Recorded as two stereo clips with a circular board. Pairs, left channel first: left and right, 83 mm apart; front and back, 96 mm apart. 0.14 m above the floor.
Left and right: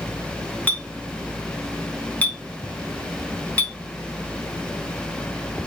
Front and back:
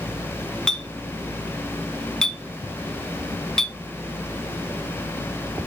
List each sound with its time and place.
0.7 s a clink: 70° left, 0.6 m